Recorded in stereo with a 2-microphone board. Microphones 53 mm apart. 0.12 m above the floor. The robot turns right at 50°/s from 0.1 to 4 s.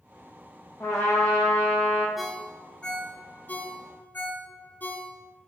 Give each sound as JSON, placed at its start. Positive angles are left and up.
{"t": 0.8, "sound": "a trumpet", "azimuth_deg": 65, "distance_m": 1.4}
{"t": 2.2, "sound": "a ringtone", "side_deg": -5, "distance_m": 0.6}